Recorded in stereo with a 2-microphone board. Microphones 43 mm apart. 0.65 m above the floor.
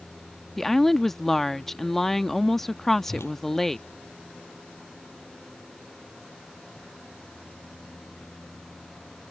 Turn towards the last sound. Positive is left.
turn(degrees=75)  # may be behind; listen again after turning